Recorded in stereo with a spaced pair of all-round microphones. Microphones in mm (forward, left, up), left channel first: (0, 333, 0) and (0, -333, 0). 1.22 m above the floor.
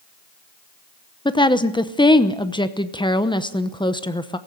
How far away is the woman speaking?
About 0.8 m.